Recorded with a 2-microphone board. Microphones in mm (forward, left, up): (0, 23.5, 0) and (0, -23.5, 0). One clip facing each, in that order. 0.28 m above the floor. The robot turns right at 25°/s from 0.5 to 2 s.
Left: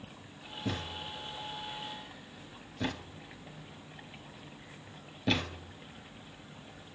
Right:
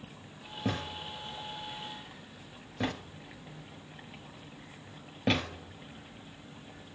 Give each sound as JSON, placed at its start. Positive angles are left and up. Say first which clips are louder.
{"t": 0.7, "sound": "a thud", "louder": "right 2 dB", "side_deg": -80, "distance_m": 5.5}